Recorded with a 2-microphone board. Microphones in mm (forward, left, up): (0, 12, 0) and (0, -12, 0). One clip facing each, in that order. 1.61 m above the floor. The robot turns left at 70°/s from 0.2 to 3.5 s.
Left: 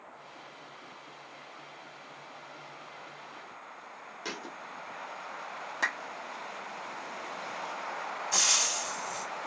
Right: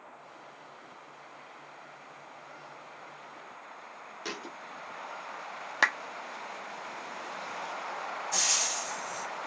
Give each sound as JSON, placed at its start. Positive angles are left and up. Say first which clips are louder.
{"t": 4.2, "sound": "a thud", "louder": "even", "side_deg": -5, "distance_m": 1.1}
{"t": 5.8, "sound": "a clap", "louder": "right 5 dB", "side_deg": -50, "distance_m": 0.5}
{"t": 8.3, "sound": "frying", "louder": "left 2 dB", "side_deg": 30, "distance_m": 1.4}